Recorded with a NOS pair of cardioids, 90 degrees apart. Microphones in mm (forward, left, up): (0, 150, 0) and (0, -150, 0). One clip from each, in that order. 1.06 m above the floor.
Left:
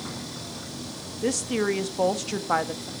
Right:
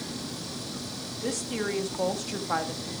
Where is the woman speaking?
30° left, 1.2 m.